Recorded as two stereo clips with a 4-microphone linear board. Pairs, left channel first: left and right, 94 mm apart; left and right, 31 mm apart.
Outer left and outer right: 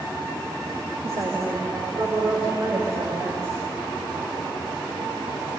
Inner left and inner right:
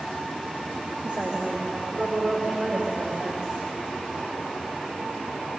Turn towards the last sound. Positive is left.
turn(degrees=-40)  # may be behind; listen again after turning